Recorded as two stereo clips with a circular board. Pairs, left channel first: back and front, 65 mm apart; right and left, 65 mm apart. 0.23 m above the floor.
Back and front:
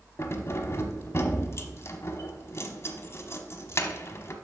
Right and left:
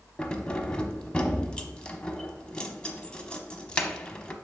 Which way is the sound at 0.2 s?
160° right.